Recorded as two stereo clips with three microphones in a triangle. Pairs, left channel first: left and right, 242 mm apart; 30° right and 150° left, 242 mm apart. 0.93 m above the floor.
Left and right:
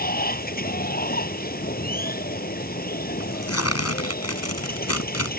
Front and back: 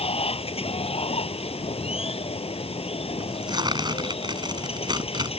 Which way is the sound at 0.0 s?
35° left.